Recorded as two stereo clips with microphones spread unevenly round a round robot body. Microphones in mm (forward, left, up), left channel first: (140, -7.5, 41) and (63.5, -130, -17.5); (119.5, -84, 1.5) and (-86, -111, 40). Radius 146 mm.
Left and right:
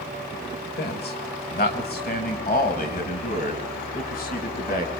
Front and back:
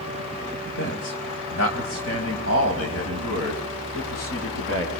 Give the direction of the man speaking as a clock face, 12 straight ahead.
10 o'clock.